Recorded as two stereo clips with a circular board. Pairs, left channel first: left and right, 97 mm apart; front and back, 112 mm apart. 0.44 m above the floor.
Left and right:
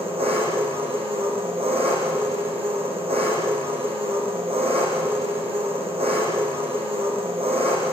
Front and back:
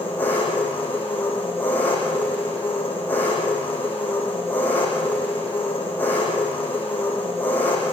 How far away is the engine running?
About 7.5 m.